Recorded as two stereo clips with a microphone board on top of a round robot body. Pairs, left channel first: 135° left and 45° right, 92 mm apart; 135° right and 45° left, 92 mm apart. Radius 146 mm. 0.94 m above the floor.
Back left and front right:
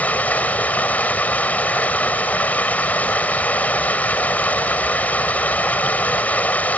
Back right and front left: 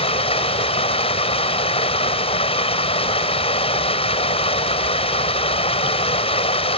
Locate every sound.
0.0 s running water: 150° right